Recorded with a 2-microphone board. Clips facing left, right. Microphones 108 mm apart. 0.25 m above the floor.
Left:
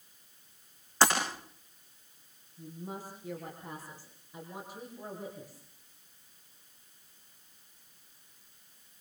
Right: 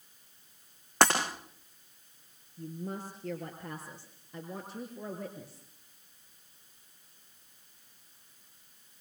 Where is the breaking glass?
60° right (ahead or behind), 9.5 m.